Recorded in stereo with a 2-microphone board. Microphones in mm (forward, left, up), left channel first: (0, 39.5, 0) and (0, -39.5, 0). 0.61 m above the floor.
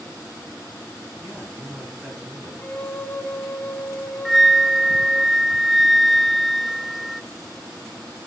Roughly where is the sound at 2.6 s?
Left.